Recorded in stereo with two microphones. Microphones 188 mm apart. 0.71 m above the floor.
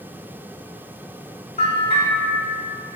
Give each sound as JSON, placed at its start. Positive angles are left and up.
{"t": 1.6, "sound": "a bell", "side_deg": 35, "distance_m": 2.0}